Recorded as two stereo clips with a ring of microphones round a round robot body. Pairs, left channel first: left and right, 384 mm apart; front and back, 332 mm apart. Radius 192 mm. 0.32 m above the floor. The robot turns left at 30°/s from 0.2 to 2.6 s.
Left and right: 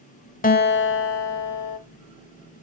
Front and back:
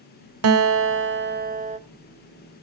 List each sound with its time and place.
0.4 s a guitar: 155° left, 0.8 m; by 1.8 s 115° left, 0.8 m